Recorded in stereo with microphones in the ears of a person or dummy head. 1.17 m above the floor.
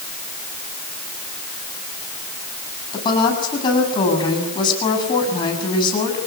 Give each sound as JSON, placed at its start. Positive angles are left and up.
{"t": 2.9, "sound": "a woman speaking", "side_deg": 25, "distance_m": 8.5}